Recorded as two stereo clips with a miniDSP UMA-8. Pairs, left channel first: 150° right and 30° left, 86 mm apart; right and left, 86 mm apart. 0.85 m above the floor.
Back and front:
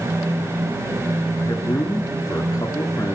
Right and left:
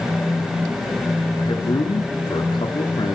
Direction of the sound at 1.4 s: 105° right.